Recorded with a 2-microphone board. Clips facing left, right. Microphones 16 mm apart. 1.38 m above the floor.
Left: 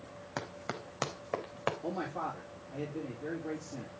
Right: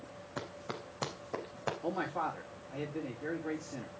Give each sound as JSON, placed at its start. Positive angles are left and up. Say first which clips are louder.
{"t": 0.4, "sound": "running footsteps", "louder": "left 2 dB", "side_deg": 70, "distance_m": 4.0}
{"t": 1.8, "sound": "a man speaking", "louder": "right 2 dB", "side_deg": -15, "distance_m": 4.5}